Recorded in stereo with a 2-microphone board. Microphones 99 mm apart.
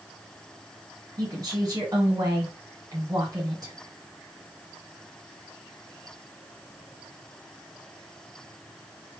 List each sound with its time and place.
1.2 s a woman speaking: 45° right (ahead or behind), 1.8 m